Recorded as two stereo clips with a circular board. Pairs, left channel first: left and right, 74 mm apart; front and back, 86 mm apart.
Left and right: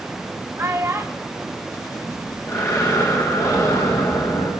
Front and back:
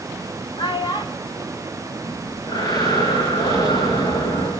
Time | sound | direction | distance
0.6 | a child speaking | 25° right | 3.5 m
2.0 | breathing | 40° left | 9.5 m